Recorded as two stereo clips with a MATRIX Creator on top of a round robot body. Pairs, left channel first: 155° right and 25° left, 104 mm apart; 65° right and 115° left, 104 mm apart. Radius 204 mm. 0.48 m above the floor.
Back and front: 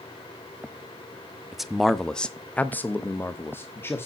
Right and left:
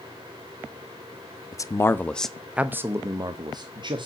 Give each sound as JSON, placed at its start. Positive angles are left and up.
{"t": 1.5, "sound": "a man speaking", "azimuth_deg": -60, "distance_m": 1.1}